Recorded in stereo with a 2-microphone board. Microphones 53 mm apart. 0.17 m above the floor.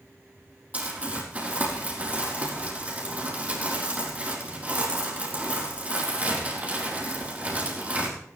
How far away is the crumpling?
About 5 m.